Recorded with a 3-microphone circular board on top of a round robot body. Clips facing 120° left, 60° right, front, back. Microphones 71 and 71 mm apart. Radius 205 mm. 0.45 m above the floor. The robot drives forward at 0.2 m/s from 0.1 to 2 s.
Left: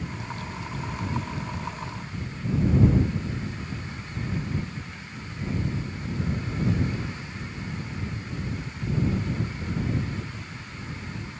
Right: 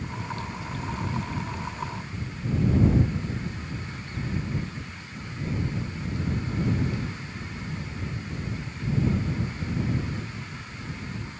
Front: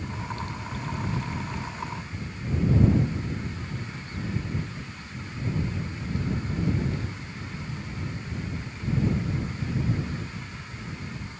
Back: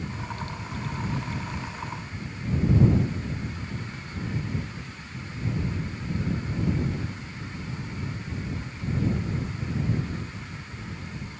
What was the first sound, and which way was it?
Only background noise.